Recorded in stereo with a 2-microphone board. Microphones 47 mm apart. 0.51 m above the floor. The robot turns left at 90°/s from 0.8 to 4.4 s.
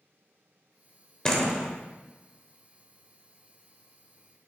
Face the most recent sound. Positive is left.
turn(degrees=95)